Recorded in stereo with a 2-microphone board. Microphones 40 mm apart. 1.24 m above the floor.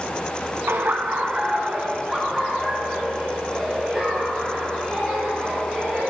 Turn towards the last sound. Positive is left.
turn(degrees=5)  # may be behind; listen again after turning